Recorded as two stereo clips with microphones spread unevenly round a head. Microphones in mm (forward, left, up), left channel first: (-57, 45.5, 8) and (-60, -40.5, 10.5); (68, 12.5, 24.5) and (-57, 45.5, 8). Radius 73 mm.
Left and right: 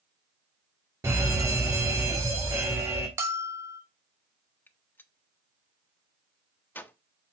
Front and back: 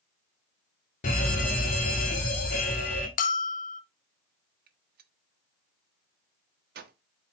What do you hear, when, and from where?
1.0 s a fire alarm: 30° right, 1.9 m
3.2 s a bell: 25° right, 0.7 m
4.7 s a gunshot: 155° left, 1.0 m